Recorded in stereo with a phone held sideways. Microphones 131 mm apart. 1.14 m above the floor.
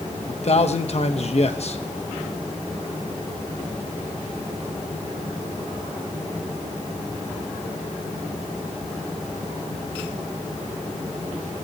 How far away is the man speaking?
About 1.1 m.